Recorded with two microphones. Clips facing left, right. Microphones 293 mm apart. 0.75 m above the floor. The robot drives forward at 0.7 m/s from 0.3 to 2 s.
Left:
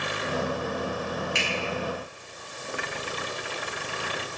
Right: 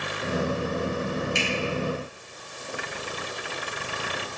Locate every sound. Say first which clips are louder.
1.4 s a finger snap: right 3 dB; 70° left (ahead or behind), 2.5 m; by 1.5 s 65° left (ahead or behind), 2.5 m